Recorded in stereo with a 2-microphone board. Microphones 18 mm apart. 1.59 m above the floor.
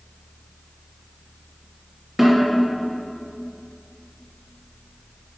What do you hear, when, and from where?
2.2 s a snare drum: 10° right (ahead or behind), 3 m